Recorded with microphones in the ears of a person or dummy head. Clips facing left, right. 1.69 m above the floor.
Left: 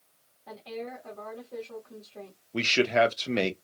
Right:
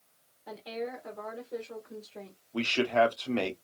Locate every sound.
0.5 s a woman speaking: 5° right (ahead or behind), 1.3 m
2.5 s a man speaking: 25° left (ahead or behind), 0.7 m